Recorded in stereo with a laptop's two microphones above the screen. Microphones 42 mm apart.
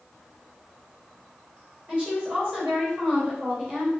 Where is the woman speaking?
20° right (ahead or behind), 4 m.